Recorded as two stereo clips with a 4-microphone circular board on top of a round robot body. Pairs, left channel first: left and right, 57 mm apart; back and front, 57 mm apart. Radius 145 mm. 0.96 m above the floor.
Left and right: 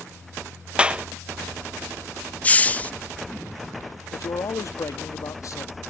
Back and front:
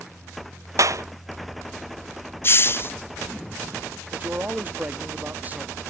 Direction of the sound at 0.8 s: 20° right.